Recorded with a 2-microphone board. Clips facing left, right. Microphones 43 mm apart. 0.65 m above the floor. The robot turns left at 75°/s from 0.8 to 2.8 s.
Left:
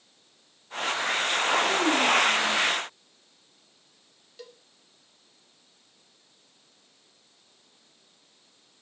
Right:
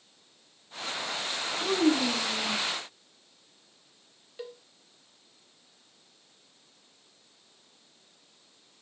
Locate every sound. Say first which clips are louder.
1.6 s a child speaking: left 2 dB; 80° right, 4 m; by 2.6 s 155° right, 4 m
4.4 s a cowbell: right 5 dB; 20° right (ahead or behind), 1.9 m